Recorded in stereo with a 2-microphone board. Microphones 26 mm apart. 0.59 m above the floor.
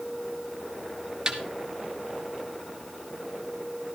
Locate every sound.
1.3 s a snare drum: 20° right (ahead or behind), 1.4 m